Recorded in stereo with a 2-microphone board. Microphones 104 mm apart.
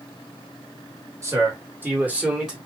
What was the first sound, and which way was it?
A man speaking, 25° right (ahead or behind).